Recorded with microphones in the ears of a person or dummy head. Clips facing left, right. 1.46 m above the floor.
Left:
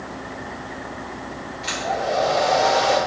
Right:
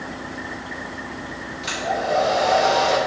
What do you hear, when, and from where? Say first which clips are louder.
1.6 s a hair dryer: right 1 dB; 15° right (ahead or behind), 2.5 m